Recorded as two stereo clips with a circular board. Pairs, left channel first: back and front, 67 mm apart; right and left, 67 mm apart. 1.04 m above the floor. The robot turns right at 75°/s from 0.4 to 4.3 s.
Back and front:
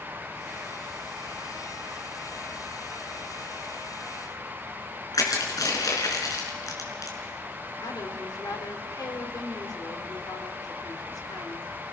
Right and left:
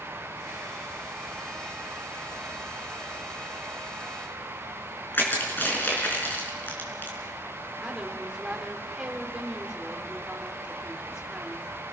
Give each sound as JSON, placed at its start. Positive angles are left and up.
{"t": 5.1, "sound": "crushing", "azimuth_deg": -150, "distance_m": 4.5}
{"t": 7.8, "sound": "a woman speaking", "azimuth_deg": 170, "distance_m": 3.5}